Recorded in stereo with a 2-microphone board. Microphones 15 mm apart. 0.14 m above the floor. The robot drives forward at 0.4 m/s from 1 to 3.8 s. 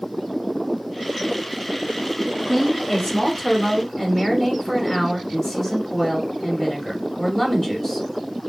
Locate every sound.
2.5 s a woman speaking: 30° left (ahead or behind), 1.3 m; by 8.1 s 35° left (ahead or behind), 1.2 m